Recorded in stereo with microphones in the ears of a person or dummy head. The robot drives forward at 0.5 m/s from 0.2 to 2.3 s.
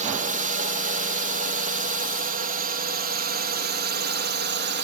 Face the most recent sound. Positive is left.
turn(degrees=-55)  # may be behind; listen again after turning